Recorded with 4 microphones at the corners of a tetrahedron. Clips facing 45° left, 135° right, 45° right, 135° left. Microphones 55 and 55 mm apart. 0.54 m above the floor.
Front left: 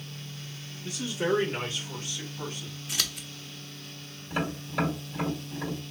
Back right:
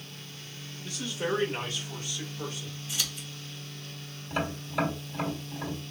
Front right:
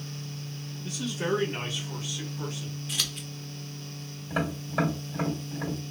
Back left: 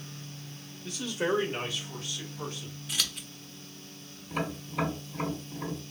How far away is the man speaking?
About 1.3 m.